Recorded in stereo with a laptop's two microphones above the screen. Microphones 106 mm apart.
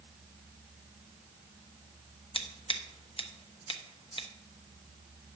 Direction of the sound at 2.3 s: 55° left (ahead or behind).